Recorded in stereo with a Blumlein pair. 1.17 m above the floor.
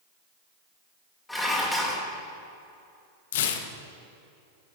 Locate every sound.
1.3 s dishes clattering: 5° left, 2 m
3.3 s tearing paper: 55° left, 0.9 m